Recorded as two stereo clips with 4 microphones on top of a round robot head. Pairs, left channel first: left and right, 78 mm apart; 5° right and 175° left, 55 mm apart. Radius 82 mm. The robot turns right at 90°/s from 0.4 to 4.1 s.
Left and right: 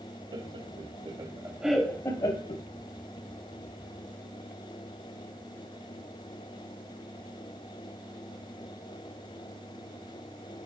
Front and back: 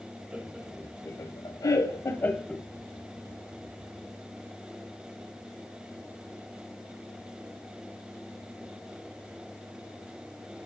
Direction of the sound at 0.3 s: 120° right.